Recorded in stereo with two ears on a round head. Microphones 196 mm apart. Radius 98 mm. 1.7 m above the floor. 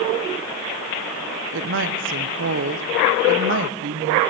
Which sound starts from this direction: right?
A woman speaking, at 1.5 s.